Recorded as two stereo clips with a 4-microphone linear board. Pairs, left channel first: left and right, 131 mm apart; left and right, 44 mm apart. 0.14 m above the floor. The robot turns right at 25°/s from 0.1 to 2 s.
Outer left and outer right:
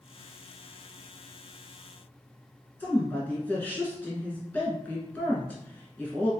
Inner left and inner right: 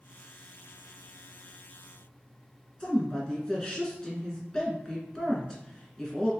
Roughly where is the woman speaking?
Centre.